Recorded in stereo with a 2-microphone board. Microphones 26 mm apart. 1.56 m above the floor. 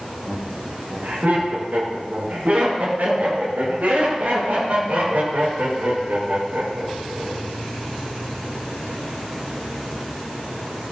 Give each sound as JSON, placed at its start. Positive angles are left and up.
{"t": 0.3, "sound": "laughter", "side_deg": -90, "distance_m": 6.0}